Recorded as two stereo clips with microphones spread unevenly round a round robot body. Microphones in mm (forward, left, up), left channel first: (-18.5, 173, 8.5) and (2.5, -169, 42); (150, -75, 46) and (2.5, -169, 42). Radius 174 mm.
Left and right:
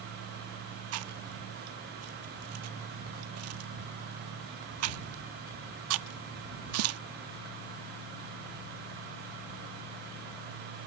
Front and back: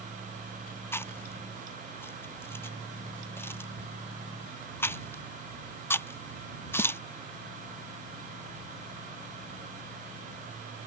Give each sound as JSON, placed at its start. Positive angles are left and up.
{"t": 0.9, "sound": "chewing", "azimuth_deg": -45}